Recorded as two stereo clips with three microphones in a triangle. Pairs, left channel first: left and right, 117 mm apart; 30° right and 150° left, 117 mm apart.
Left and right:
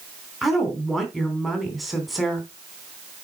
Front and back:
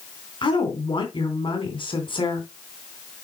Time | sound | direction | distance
0.4 | a woman speaking | straight ahead | 2.5 m